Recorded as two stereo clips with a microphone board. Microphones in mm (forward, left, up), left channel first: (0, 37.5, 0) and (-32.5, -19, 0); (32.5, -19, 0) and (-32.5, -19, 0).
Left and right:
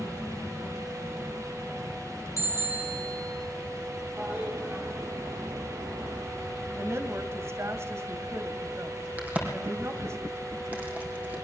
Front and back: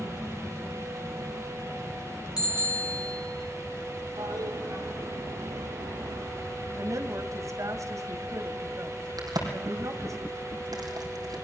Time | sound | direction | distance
2.4 | a bicycle bell | 15° left | 3 m
4.2 | a toilet flushing | 170° right | 8.5 m
6.7 | a woman speaking | 160° right | 1.9 m
9.2 | a crack | 175° left | 4 m